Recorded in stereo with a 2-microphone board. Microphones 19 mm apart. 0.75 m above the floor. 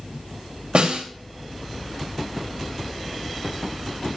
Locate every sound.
0.8 s a snare drum: 85° right, 2.5 m